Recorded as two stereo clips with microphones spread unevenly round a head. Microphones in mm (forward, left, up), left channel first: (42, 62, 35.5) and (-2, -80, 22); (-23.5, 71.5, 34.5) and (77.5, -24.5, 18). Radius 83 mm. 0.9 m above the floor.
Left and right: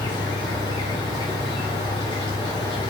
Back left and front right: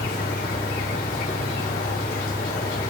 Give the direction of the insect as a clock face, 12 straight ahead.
8 o'clock.